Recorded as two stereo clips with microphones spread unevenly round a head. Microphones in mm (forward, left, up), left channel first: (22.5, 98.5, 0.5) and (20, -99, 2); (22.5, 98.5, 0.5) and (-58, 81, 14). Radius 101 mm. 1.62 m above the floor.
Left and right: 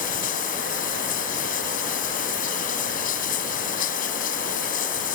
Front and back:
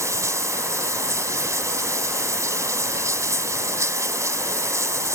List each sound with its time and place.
0.0 s running water: 145° left